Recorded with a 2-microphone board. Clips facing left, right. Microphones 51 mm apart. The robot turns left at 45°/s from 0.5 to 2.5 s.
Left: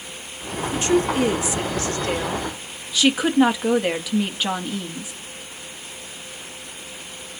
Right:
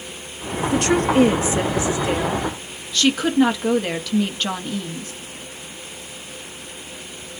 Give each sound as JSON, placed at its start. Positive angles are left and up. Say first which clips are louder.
{"t": 0.7, "sound": "a woman speaking", "louder": "right 2 dB", "azimuth_deg": -110, "distance_m": 1.1}